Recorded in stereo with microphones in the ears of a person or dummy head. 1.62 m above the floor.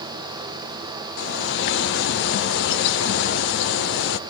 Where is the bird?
70° left (ahead or behind), 0.6 m.